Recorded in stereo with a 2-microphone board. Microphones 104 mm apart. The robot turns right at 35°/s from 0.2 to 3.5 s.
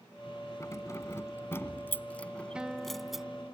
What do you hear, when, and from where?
0.6 s keys jangling: 30° left (ahead or behind); by 3.2 s 5° right (ahead or behind)
2.5 s a guitar: 10° right; by 3.5 s 25° left